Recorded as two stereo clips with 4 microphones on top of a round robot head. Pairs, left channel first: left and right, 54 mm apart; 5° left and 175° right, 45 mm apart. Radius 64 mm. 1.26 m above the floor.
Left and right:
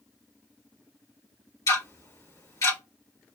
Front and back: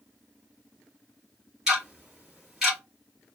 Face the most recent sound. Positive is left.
turn(degrees=105)